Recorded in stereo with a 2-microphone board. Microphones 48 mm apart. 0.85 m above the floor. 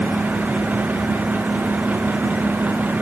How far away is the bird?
I don't hear a bird.